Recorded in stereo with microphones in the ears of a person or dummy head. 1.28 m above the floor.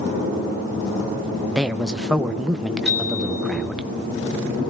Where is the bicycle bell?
Centre (ahead or behind), 6 m.